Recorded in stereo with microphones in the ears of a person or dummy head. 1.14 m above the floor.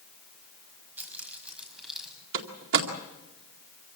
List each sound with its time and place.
1.0 s keys jangling: 5° right (ahead or behind), 5.5 m; by 2.1 s centre (ahead or behind), 5.5 m
2.3 s a door slam: 70° right (ahead or behind), 2 m